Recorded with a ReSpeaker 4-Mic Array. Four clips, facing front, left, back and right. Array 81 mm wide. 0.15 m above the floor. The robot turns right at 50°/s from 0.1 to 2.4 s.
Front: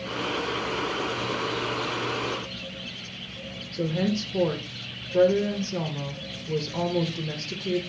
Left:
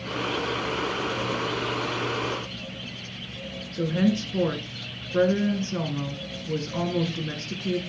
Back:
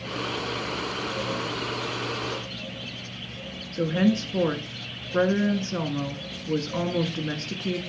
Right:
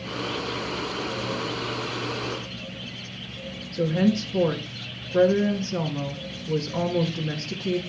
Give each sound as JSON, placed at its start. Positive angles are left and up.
{"t": 3.7, "sound": "a woman speaking", "azimuth_deg": 175, "distance_m": 1.8}